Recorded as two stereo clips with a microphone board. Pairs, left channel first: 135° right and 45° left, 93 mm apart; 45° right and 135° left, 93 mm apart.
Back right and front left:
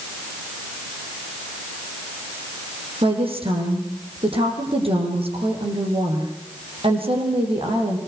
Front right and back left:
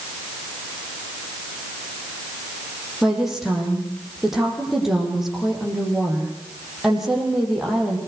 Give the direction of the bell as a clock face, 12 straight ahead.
I don't hear a bell.